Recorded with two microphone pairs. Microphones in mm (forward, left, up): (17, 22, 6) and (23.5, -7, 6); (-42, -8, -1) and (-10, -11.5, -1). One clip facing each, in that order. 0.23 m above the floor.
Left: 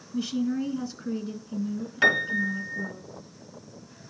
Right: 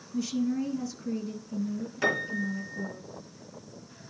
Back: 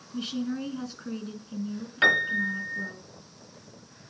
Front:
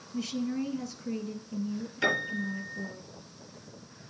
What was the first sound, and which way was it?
A woman speaking, 145° left.